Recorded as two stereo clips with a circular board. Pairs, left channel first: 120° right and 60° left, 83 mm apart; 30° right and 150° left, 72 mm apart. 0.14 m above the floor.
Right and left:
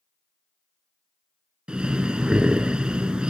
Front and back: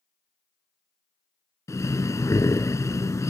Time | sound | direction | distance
1.7 | breathing | 15° right | 0.6 m